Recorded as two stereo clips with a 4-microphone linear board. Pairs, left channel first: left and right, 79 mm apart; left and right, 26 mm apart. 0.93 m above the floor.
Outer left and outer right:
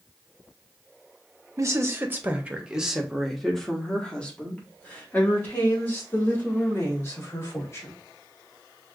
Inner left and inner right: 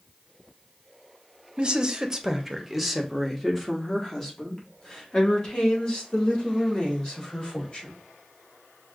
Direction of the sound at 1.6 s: 40° right (ahead or behind).